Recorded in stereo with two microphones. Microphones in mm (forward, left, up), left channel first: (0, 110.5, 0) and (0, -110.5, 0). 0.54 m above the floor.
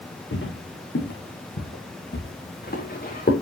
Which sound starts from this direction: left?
Footsteps, at 0.3 s.